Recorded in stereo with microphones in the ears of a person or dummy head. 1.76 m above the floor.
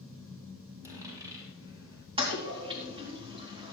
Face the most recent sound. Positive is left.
turn(degrees=-25)  # may be behind; listen again after turning